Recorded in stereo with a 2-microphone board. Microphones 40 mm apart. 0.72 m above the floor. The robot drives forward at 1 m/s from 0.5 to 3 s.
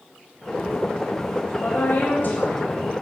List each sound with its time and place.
1.6 s a woman speaking: 60° left (ahead or behind), 4 m; by 2.8 s 50° left (ahead or behind), 4.5 m